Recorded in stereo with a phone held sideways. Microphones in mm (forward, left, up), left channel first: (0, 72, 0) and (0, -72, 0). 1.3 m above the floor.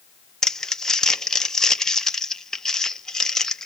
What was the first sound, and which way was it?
Crumpling, 5° left (ahead or behind).